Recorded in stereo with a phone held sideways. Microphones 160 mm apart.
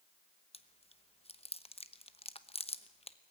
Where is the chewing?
40° left (ahead or behind), 0.9 m.